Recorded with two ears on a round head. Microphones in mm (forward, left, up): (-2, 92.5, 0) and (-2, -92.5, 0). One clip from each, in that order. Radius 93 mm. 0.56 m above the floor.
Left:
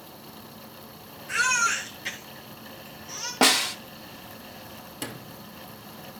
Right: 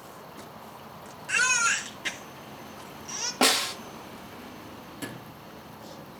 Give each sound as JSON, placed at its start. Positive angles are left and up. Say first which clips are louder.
{"t": 1.3, "sound": "a baby crying", "louder": "even", "side_deg": -35, "distance_m": 2.0}
{"t": 3.4, "sound": "a snare drum", "louder": "left 3 dB", "side_deg": 0, "distance_m": 0.8}
{"t": 5.0, "sound": "a sliding door", "louder": "left 3 dB", "side_deg": 30, "distance_m": 1.6}